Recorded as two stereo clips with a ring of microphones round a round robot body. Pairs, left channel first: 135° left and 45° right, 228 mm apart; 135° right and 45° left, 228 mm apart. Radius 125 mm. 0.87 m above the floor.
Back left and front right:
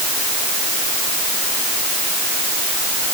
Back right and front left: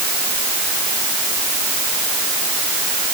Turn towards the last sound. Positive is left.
No sound to turn to.